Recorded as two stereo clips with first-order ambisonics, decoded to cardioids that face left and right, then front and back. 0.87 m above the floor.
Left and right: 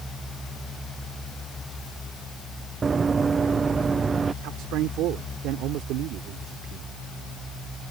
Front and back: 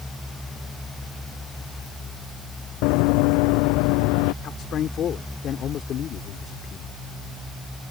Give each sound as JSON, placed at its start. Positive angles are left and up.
{"t": 2.8, "sound": "running footsteps", "azimuth_deg": -20}
{"t": 4.4, "sound": "a man speaking", "azimuth_deg": -55}